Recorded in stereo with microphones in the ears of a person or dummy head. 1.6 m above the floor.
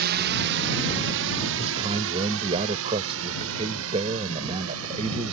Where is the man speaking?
30° right (ahead or behind).